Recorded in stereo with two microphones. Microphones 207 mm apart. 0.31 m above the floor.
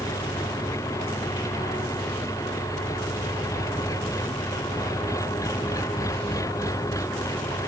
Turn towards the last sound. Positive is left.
turn(degrees=15)  # may be behind; listen again after turning